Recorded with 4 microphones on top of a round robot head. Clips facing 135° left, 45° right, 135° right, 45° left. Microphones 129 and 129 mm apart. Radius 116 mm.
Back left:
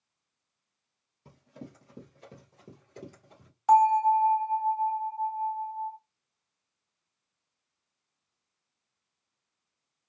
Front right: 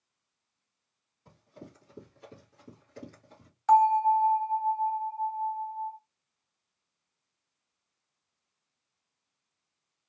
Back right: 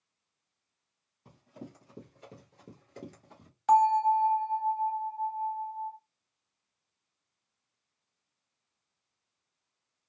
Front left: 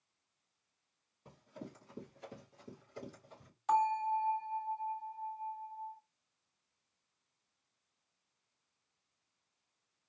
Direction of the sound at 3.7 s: 150° right.